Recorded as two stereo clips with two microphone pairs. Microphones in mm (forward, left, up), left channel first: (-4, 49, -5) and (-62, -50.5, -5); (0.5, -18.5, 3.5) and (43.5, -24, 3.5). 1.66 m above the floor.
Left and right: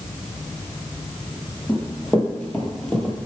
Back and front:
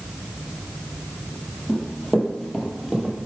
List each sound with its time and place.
1.7 s running footsteps: 125° left, 1.8 m; by 3.2 s 25° left, 1.6 m